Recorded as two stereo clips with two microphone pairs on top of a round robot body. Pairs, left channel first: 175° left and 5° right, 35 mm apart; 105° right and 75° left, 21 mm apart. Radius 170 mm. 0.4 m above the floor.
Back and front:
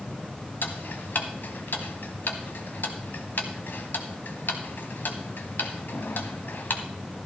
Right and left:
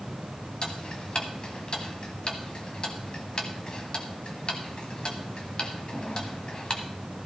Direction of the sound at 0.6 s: 155° right.